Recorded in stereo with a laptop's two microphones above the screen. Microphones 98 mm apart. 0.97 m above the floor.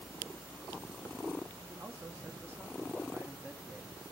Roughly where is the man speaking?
Right.